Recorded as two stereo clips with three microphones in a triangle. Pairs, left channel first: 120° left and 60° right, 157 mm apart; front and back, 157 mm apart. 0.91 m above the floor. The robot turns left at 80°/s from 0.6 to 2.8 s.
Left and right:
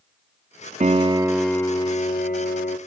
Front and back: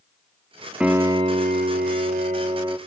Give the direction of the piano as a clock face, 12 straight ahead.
3 o'clock.